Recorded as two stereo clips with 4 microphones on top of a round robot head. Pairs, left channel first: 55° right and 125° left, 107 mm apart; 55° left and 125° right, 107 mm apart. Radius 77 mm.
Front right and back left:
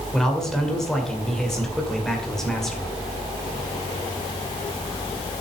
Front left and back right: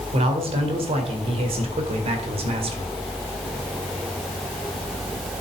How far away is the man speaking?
About 2.5 m.